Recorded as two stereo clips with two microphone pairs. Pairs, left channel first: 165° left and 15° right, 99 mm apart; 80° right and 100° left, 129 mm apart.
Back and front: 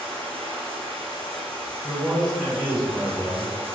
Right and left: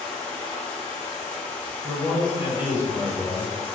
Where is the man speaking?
65° left, 1.4 m.